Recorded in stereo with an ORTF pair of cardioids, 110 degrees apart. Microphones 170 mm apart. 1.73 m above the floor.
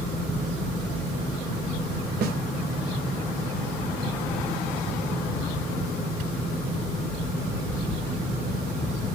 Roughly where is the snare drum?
Ahead right.